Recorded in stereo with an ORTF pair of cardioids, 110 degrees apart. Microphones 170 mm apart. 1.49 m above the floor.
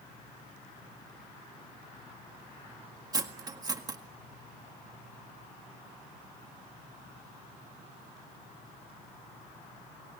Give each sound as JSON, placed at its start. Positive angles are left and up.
{"t": 3.1, "sound": "cutlery clinking", "azimuth_deg": -25, "distance_m": 1.7}